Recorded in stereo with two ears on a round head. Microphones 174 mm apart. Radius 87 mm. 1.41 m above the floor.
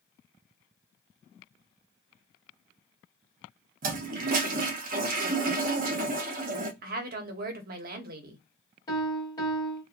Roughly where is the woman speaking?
Right.